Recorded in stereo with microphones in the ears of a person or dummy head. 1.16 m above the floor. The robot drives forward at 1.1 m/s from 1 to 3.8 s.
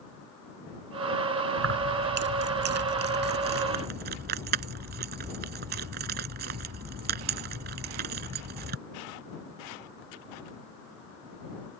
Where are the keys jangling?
60° right (ahead or behind); by 8.8 s 50° right (ahead or behind).